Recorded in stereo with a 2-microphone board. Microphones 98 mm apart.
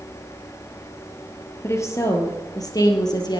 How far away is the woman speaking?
About 3.5 m.